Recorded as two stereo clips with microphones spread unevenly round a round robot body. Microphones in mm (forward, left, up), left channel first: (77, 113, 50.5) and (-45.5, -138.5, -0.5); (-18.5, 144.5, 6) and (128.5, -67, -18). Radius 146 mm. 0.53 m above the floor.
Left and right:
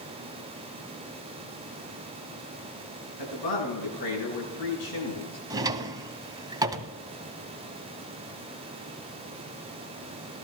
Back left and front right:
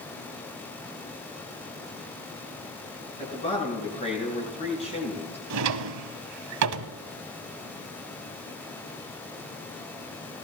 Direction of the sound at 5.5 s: 35° right.